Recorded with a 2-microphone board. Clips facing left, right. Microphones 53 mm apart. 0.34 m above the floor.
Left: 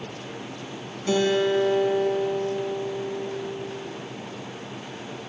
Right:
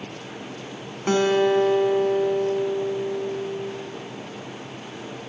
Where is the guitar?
50° right (ahead or behind), 2 m.